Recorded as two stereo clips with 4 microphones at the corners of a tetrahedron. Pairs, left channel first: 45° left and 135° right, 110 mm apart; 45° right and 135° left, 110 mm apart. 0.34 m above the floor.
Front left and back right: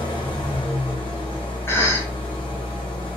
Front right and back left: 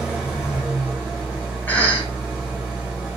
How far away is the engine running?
About 1.6 m.